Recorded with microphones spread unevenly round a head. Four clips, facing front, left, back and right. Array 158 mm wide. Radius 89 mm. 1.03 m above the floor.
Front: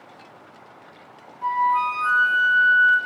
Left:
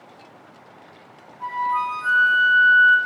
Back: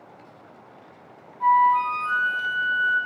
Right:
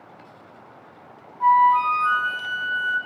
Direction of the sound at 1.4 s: 135° right.